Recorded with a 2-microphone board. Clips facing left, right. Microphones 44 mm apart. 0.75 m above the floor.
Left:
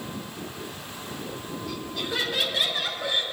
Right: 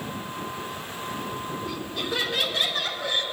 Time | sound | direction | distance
1.6 | laughter | 10° right (ahead or behind) | 3 m